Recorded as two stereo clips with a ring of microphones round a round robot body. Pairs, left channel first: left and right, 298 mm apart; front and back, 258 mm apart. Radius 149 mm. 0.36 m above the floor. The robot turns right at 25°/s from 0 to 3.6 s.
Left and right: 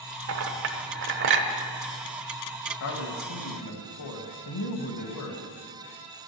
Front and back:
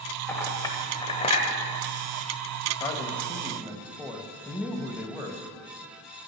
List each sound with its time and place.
0.3 s a clink: 80° right, 1.1 m; by 1.5 s 50° right, 1.1 m
2.8 s a man speaking: 75° left, 1.5 m; by 5.5 s 95° left, 1.5 m